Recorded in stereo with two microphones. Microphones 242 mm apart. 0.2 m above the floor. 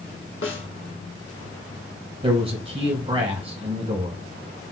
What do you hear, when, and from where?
0.4 s a snare drum: 55° left (ahead or behind), 0.8 m
2.2 s a man speaking: 25° right (ahead or behind), 1.2 m